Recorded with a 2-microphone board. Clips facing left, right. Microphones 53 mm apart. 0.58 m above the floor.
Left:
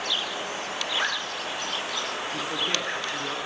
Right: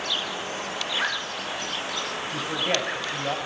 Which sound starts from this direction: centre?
A zipper, at 0.9 s.